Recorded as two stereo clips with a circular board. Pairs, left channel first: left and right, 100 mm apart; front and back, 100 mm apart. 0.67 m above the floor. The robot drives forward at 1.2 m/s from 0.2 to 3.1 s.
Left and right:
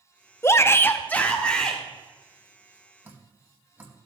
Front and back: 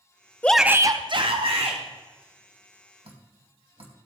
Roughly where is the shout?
Ahead left.